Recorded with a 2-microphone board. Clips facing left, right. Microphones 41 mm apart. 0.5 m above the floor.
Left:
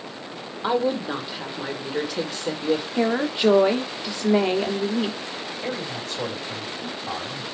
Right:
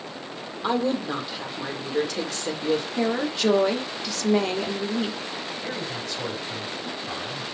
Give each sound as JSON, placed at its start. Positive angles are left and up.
{"t": 0.6, "sound": "a woman speaking", "side_deg": 10, "distance_m": 1.3}
{"t": 3.0, "sound": "a woman speaking", "side_deg": 20, "distance_m": 0.8}
{"t": 5.6, "sound": "a man speaking", "side_deg": 45, "distance_m": 2.5}